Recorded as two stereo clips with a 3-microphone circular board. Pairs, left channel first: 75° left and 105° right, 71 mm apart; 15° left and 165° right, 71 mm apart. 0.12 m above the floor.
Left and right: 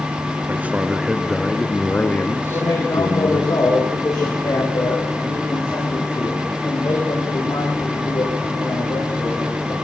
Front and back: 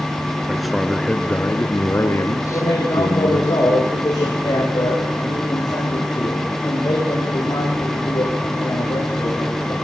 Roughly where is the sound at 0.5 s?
Right.